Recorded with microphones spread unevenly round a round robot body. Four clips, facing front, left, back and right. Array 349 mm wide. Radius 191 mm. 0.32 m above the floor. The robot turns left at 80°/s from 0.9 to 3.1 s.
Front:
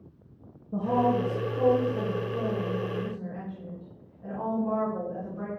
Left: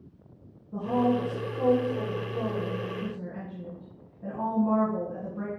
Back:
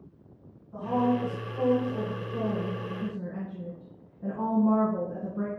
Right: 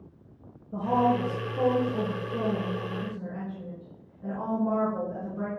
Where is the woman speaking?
10° right, 3.5 m; by 5.5 s 175° left, 3.5 m.